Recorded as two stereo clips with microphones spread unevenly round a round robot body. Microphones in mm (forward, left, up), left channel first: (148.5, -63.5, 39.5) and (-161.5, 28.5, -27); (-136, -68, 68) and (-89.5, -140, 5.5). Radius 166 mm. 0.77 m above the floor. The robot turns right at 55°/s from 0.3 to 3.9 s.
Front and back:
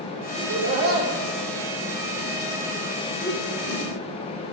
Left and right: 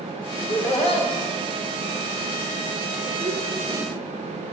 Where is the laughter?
105° left, 2.5 m; by 3.9 s 60° right, 2.5 m.